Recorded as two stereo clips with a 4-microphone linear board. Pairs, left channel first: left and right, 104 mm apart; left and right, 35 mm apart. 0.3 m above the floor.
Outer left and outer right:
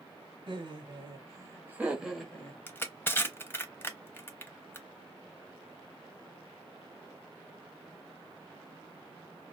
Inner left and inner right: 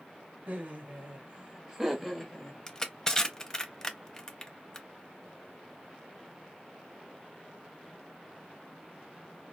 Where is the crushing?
20° left (ahead or behind), 0.5 m.